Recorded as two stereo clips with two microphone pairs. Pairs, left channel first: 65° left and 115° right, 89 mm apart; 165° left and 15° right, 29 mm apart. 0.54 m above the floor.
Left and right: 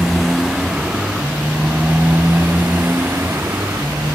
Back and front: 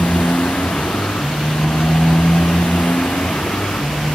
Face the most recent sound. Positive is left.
turn(degrees=-175)